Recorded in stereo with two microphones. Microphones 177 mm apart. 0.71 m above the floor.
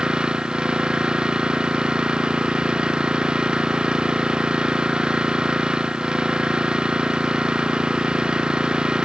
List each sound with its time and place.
0.0 s an engine running: 5° right (ahead or behind)